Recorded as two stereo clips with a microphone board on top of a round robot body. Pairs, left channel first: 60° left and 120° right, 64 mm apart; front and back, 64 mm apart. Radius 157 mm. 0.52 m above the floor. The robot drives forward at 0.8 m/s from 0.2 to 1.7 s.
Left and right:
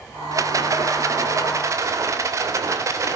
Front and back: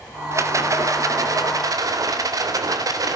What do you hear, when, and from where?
0.3 s a rattle: 145° right, 2.5 m; by 3.2 s 155° right, 3 m